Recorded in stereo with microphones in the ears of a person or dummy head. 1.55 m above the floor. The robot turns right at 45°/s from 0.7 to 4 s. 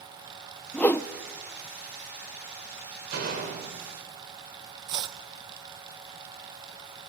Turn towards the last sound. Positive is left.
turn(degrees=-25)  # may be behind; listen again after turning